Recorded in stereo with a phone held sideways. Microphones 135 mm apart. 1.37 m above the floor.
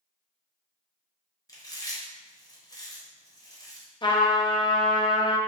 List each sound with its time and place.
1.5 s chewing: 25° left (ahead or behind), 0.8 m
4.0 s a trumpet: 35° left (ahead or behind), 0.5 m